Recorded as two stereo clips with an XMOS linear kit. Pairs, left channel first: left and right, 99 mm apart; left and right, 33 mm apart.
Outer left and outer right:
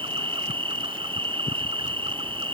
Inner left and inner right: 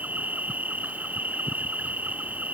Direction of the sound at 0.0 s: 65° right (ahead or behind).